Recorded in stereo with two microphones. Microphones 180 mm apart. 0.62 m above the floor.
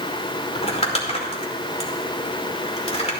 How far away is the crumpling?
About 2.5 m.